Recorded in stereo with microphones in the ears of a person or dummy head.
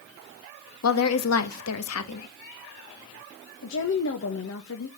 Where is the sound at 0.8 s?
85° left, 1.7 m.